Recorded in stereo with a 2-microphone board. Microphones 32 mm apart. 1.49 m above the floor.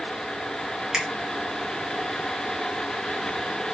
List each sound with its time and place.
0.9 s a finger snap: 15° right (ahead or behind), 1.2 m